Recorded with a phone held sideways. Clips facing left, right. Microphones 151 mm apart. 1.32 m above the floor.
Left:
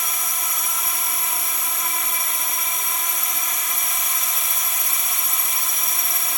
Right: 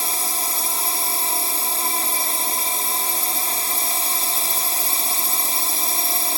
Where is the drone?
30° right (ahead or behind).